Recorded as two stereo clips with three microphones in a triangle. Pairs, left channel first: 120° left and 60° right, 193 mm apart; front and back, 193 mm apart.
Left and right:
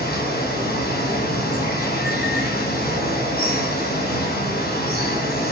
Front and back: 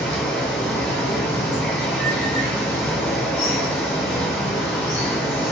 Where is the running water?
80° left, 2.0 m.